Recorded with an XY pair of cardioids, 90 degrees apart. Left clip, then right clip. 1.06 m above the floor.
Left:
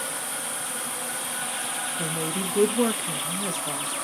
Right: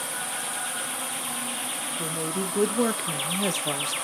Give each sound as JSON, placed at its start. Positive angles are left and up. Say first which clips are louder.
{"t": 2.0, "sound": "a woman speaking", "louder": "left 1 dB", "azimuth_deg": 15, "distance_m": 1.0}